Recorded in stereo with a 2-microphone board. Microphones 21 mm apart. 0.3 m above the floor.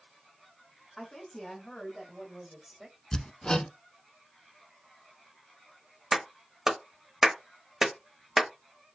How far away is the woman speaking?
About 1.9 m.